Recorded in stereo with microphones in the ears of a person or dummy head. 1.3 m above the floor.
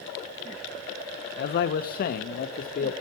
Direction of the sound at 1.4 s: 60° left (ahead or behind).